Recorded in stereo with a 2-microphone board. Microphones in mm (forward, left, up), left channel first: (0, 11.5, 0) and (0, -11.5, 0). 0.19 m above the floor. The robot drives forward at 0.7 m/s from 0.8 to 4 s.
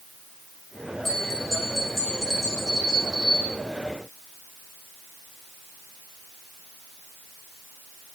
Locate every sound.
1.1 s a bell: 15° left (ahead or behind), 4.5 m; by 3.5 s 20° left (ahead or behind), 3 m